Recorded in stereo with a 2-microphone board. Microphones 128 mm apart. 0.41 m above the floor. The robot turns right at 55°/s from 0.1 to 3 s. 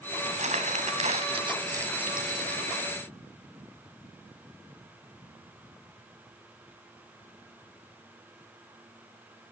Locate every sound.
0.2 s crumpling: 60° right (ahead or behind), 1.9 m; by 2.8 s 30° left (ahead or behind), 1.9 m